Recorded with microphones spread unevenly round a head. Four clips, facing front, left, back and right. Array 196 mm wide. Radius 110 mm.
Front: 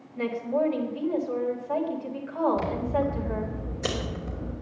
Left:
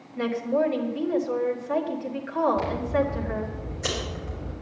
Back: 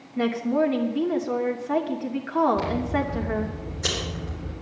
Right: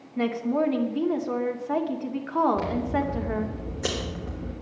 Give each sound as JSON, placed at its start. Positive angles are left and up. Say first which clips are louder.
{"t": 0.2, "sound": "a woman speaking", "louder": "even, back 4 dB", "azimuth_deg": -145, "distance_m": 2.5}
{"t": 2.6, "sound": "scissors", "louder": "left 1 dB, back 1 dB", "azimuth_deg": -80, "distance_m": 3.5}